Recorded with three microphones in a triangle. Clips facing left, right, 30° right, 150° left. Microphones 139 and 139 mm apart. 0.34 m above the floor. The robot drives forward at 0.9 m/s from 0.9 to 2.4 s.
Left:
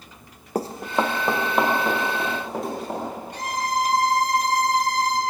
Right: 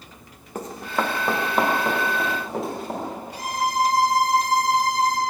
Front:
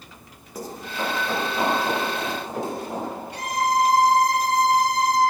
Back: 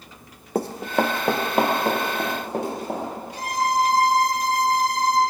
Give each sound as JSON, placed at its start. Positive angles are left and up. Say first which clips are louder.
{"t": 0.6, "sound": "running footsteps", "louder": "left 3 dB, back 8 dB", "azimuth_deg": 135, "distance_m": 0.7}
{"t": 3.3, "sound": "a violin", "louder": "right 2 dB, even", "azimuth_deg": -10, "distance_m": 1.9}